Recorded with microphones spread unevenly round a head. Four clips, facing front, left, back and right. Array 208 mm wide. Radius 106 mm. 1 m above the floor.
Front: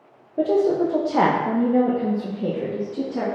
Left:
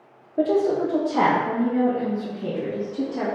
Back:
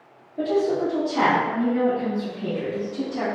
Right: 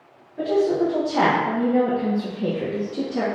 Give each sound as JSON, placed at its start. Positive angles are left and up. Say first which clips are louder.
{"t": 0.4, "sound": "a woman speaking", "louder": "even, front 3 dB", "azimuth_deg": 35, "distance_m": 0.8}